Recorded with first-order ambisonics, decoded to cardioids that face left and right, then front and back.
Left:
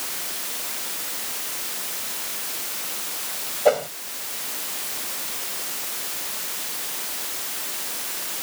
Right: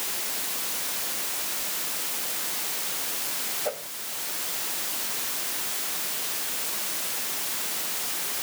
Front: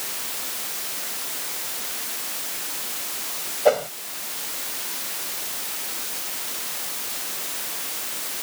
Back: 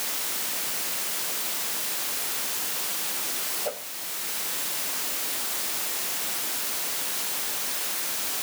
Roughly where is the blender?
No blender in this recording.